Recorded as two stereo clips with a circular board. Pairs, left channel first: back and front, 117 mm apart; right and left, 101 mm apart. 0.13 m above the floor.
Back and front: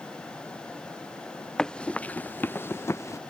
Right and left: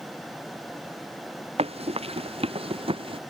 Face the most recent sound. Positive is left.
turn(degrees=115)